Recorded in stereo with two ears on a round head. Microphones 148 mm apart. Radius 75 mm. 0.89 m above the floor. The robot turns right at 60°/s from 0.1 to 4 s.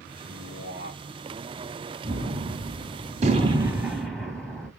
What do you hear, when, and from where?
0.2 s a man speaking: 90° right, 1.8 m; by 1.0 s 40° right, 1.8 m
2.0 s a gunshot: 115° right, 1.7 m; by 4.7 s 5° left, 1.7 m